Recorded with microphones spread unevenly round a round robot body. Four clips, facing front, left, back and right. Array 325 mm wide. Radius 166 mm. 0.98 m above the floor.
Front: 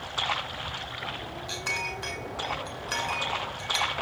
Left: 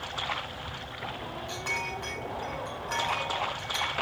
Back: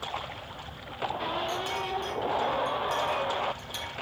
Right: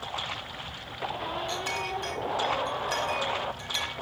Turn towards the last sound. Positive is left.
turn(degrees=-140)